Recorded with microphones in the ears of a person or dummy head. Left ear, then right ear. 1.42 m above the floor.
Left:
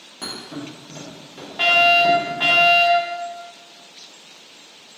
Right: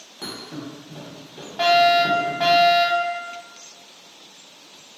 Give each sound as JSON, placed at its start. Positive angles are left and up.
{"t": 0.2, "sound": "a thud", "side_deg": 5, "distance_m": 1.3}
{"t": 1.6, "sound": "a fire alarm", "side_deg": -15, "distance_m": 1.8}